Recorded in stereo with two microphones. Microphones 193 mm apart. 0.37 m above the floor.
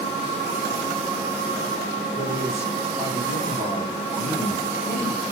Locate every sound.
2.1 s a man speaking: 30° left (ahead or behind), 7 m